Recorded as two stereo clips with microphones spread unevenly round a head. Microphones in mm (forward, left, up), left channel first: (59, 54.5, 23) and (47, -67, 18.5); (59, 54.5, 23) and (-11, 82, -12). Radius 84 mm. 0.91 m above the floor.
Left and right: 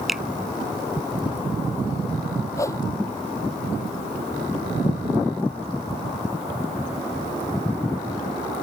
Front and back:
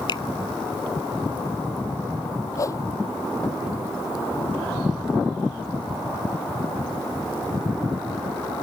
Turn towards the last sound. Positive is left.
turn(degrees=20)